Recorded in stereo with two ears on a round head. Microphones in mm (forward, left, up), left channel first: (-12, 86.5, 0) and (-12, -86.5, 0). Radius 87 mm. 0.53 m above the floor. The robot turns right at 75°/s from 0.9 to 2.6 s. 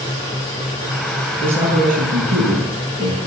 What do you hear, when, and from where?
1.4 s a man speaking: 175° right, 8 m; by 3.2 s 85° right, 8 m